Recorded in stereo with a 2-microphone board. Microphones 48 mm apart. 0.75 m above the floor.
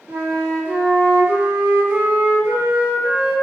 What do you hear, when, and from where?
0.1 s a flute: 35° right (ahead or behind), 1.8 m